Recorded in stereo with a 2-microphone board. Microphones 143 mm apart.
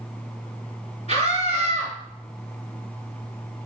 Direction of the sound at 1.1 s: 50° left (ahead or behind).